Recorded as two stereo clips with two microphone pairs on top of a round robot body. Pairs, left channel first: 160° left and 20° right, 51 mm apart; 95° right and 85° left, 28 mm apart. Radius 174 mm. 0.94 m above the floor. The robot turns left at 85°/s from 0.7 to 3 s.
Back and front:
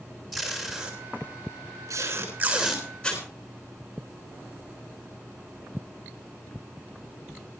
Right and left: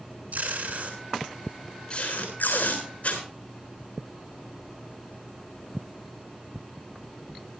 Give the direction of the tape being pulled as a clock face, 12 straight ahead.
10 o'clock.